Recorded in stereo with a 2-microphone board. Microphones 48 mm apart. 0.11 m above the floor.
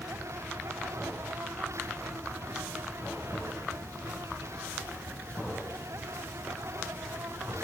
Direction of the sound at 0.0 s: 75° right (ahead or behind).